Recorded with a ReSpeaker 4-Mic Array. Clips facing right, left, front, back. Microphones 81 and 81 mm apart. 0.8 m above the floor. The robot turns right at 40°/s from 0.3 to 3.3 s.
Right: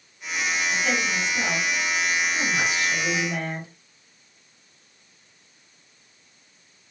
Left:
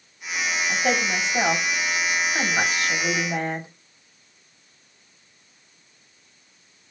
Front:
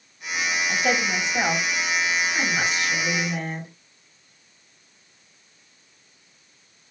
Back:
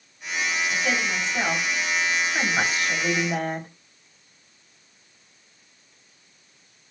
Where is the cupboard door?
No cupboard door in this recording.